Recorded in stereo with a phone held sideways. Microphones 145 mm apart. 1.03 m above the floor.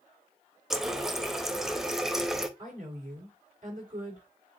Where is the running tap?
5° right (ahead or behind), 0.5 m.